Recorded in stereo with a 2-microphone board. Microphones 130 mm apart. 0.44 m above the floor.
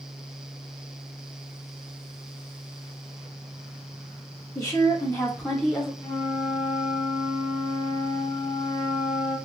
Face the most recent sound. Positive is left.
turn(degrees=30)  # may be behind; listen again after turning